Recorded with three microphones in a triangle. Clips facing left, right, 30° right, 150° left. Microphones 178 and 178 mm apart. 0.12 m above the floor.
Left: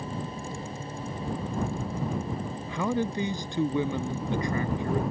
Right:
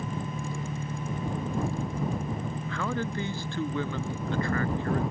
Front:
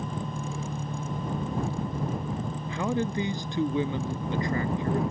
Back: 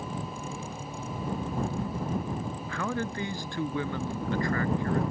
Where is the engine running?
60° right.